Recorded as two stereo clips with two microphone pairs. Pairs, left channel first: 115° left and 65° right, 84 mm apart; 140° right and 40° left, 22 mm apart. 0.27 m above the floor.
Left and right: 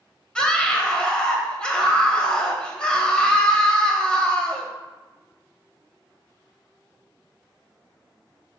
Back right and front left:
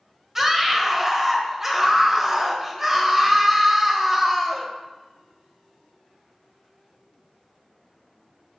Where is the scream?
65° left, 1.1 m.